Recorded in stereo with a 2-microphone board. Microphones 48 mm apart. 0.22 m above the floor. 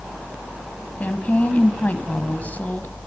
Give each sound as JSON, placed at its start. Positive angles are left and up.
{"t": 1.0, "sound": "a woman speaking", "side_deg": 35, "distance_m": 1.4}